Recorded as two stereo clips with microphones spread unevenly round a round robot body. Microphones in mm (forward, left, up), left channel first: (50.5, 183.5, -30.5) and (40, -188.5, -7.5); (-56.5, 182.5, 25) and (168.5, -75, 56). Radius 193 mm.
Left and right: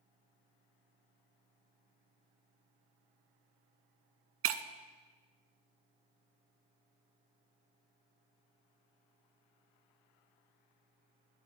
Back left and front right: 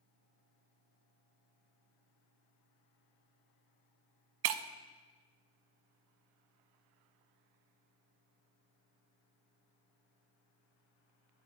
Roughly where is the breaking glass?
Ahead right.